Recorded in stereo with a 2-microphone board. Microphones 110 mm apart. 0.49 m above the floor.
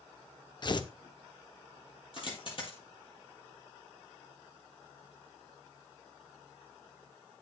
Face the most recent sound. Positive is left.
turn(degrees=50)  # may be behind; listen again after turning